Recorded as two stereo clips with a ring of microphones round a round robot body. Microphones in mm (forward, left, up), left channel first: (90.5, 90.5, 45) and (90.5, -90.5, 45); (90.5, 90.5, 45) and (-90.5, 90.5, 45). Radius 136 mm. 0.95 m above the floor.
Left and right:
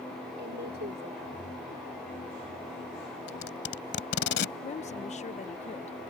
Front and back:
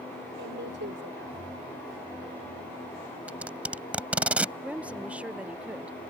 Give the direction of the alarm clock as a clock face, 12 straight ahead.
No alarm clock in this recording.